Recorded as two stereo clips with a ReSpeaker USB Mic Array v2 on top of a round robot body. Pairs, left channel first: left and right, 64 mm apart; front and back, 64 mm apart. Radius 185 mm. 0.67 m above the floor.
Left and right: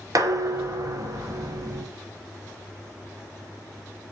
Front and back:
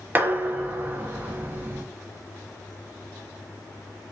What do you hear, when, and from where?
0.1 s dishes clattering: 120° right, 0.8 m